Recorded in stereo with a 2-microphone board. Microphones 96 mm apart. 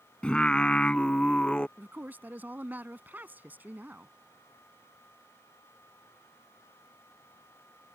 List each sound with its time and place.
0.2 s singing: 10° left (ahead or behind)
1.8 s a man speaking: 20° right (ahead or behind)